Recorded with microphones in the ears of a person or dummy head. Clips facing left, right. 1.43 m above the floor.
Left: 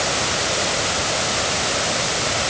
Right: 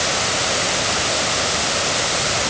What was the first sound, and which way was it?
Only background noise.